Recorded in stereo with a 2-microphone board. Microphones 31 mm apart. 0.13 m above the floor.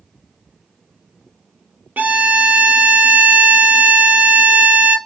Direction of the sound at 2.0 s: 75° right (ahead or behind).